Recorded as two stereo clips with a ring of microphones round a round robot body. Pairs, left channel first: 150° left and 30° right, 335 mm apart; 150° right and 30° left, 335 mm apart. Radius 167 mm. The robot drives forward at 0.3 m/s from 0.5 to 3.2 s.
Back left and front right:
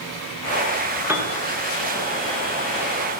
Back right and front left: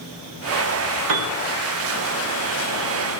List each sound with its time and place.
1.1 s a piano: 55° left, 0.7 m; by 1.3 s 60° left, 0.6 m